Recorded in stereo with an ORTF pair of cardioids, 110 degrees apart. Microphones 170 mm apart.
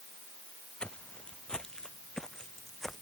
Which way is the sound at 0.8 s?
5° left.